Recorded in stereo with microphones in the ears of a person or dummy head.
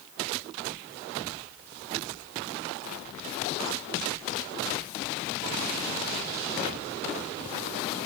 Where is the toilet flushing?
No toilet flushing in this recording.